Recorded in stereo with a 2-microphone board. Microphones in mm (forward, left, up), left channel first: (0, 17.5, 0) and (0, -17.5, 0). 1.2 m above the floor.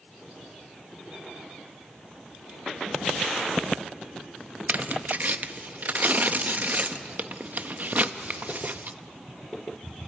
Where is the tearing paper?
50° right (ahead or behind), 0.7 m.